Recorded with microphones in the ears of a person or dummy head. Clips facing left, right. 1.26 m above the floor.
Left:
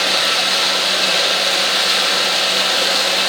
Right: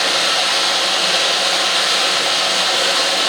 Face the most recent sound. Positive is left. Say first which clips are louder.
# right 1 dB
turn(degrees=30)  # may be behind; listen again after turning